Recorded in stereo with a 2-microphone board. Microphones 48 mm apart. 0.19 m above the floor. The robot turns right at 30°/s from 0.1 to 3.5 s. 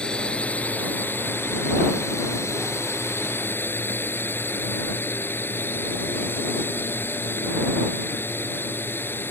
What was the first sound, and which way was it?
A drone, 20° left.